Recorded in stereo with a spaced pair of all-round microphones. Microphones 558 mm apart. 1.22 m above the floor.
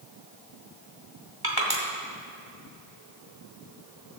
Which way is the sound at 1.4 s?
40° right (ahead or behind).